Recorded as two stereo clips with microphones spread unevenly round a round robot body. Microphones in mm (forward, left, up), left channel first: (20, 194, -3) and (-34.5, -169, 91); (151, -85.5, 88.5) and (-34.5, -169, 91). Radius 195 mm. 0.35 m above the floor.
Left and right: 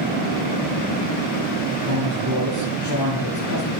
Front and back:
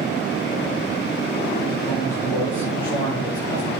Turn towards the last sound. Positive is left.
turn(degrees=-50)